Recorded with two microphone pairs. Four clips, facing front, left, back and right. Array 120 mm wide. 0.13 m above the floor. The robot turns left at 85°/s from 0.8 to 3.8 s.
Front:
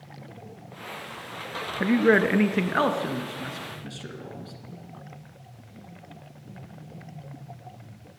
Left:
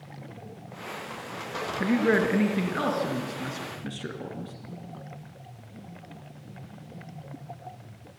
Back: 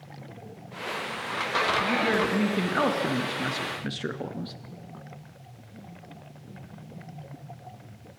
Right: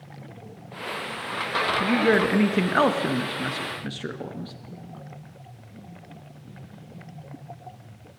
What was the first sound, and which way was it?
A man speaking, 5° left.